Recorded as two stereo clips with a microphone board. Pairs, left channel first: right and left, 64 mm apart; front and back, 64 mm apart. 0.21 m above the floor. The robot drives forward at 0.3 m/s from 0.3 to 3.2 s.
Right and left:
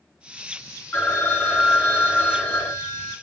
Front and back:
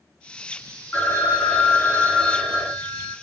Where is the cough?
I don't hear a cough.